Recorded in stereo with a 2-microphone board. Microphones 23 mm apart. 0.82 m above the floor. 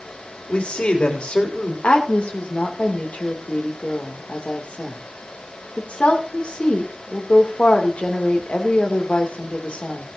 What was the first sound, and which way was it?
A man speaking, 55° left (ahead or behind).